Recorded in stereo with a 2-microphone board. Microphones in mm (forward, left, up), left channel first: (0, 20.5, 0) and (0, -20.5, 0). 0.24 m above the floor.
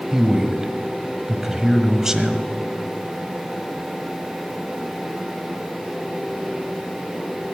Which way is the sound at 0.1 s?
15° right (ahead or behind).